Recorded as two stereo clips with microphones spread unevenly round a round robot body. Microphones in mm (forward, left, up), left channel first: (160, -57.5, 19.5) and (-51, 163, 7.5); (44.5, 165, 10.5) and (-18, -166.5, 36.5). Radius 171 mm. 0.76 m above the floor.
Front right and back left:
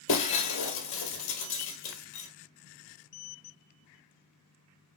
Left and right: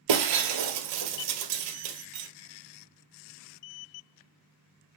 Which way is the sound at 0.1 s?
95° right.